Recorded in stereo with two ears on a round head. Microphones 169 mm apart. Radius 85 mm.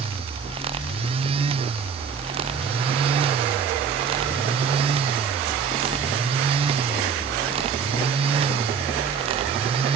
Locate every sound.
Only background noise.